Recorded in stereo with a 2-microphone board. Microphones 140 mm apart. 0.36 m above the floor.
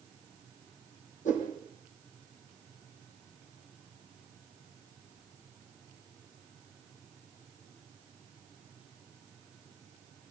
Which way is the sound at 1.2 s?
60° left (ahead or behind).